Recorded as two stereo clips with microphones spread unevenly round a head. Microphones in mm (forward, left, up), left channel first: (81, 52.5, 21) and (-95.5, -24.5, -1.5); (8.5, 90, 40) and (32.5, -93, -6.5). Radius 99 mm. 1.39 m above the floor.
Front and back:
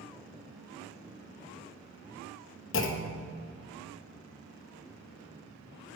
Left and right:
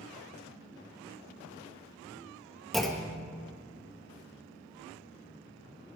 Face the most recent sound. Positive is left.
turn(degrees=15)